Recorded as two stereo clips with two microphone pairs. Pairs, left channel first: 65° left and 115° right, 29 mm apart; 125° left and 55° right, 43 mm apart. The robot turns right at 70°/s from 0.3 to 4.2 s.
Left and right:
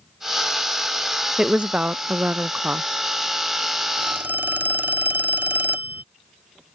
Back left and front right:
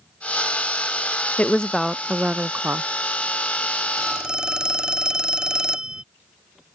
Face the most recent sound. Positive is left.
turn(degrees=-125)